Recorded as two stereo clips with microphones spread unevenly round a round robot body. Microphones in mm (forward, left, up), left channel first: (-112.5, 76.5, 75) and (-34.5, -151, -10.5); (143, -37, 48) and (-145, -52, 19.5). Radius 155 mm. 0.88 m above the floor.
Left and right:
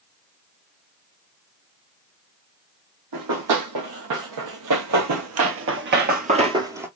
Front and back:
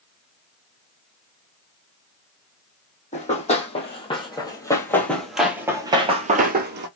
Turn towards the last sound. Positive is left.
turn(degrees=175)